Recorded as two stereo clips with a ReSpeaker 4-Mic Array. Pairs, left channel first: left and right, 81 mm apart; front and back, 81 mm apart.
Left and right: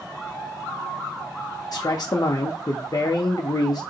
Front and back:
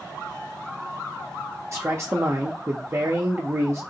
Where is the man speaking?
125° left, 0.6 m.